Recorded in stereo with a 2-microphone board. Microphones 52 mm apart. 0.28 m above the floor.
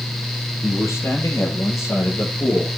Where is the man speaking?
80° left, 8 m.